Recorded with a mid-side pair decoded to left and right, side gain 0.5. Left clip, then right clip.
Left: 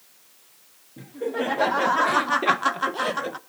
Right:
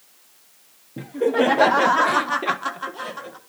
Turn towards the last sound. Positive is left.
turn(degrees=55)